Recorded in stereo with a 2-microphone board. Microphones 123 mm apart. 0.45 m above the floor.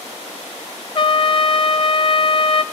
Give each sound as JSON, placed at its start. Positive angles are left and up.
{"t": 0.9, "sound": "a trumpet", "side_deg": 45, "distance_m": 0.5}